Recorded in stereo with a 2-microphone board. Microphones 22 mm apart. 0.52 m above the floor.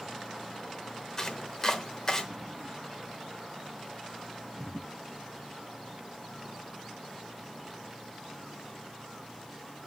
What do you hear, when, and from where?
1.2 s chopping: 20° left (ahead or behind), 0.9 m